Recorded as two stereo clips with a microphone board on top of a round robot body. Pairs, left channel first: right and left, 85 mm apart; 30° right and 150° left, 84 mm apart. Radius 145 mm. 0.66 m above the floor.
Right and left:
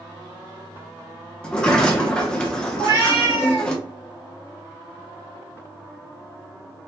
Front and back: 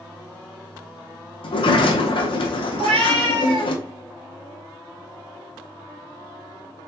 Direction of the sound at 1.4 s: 10° right.